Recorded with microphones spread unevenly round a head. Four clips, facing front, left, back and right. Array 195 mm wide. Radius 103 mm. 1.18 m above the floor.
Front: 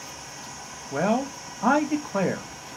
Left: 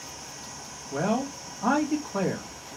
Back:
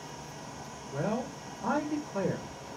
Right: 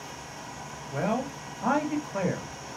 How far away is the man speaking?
About 1.4 m.